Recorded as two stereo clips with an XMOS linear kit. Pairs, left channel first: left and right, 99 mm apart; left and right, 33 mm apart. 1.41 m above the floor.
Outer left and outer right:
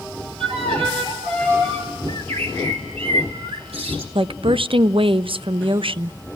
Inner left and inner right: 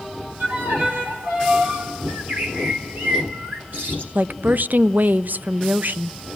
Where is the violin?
85° right, 6.5 m.